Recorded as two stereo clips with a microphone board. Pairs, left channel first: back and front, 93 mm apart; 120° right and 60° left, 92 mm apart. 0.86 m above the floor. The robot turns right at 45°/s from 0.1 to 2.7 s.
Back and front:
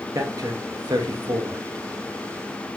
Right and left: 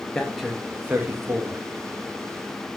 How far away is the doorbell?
I don't hear a doorbell.